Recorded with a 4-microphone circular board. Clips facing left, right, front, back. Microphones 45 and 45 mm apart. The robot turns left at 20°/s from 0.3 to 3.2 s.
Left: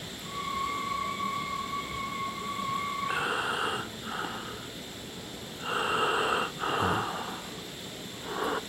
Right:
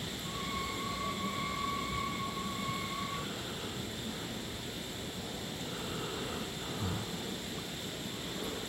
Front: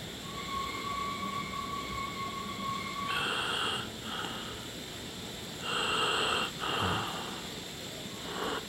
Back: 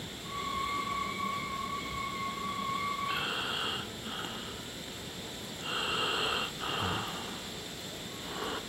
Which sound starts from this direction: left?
Breathing, at 3.0 s.